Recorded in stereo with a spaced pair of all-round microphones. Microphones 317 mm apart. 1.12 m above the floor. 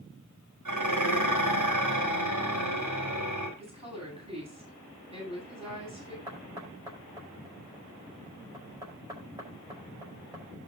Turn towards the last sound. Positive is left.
turn(degrees=-15)  # may be behind; listen again after turning